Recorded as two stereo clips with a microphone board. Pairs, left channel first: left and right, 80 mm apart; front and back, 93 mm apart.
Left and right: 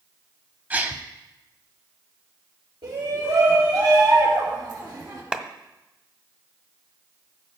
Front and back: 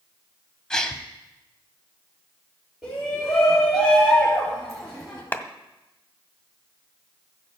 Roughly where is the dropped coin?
I don't hear a dropped coin.